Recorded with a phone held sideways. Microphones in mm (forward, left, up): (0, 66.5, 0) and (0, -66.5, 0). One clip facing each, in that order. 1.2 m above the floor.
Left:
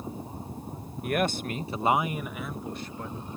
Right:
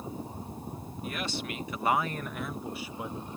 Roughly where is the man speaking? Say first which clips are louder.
Left 9 dB; left.